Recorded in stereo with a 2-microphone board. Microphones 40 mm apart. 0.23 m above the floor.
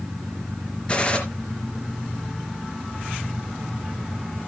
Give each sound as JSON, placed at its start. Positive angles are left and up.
{"t": 0.9, "sound": "a gunshot", "side_deg": 25, "distance_m": 4.0}